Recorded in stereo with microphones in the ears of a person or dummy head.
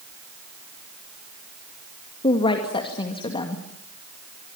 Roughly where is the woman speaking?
Left.